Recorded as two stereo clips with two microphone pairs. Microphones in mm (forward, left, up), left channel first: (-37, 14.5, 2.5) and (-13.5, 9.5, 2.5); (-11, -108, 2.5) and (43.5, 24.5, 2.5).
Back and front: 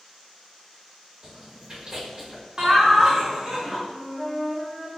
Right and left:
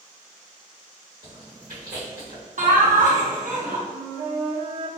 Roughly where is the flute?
Left.